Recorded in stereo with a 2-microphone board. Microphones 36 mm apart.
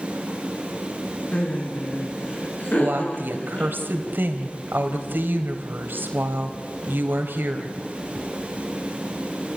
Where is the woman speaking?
70° right (ahead or behind), 3 m.